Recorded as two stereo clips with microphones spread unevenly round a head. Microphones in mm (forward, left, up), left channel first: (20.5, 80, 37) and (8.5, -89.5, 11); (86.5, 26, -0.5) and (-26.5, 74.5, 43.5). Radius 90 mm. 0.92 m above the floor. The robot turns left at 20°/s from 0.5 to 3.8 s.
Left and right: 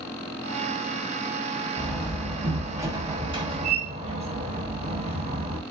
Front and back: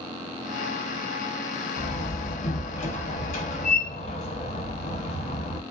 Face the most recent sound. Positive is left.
turn(degrees=-45)